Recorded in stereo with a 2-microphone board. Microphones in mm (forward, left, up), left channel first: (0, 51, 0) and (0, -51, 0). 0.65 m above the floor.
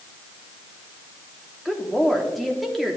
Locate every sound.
1.6 s a woman speaking: centre (ahead or behind), 1.1 m